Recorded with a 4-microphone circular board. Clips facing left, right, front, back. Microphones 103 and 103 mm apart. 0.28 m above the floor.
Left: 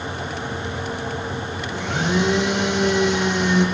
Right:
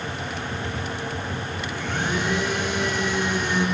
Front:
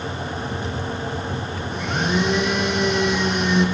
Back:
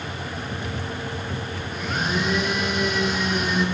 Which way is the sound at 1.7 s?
90° left.